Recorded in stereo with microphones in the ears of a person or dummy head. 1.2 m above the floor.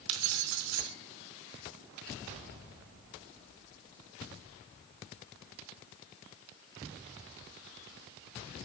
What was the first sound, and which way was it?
Keys jangling, 80° right.